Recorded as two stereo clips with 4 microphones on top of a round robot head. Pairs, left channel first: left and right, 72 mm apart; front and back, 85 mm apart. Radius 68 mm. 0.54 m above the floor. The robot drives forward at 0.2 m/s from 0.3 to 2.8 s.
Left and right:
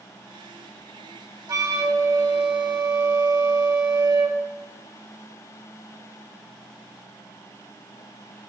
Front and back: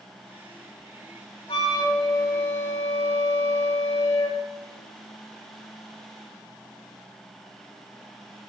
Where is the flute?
50° right, 0.8 m; by 4.4 s 70° right, 0.6 m.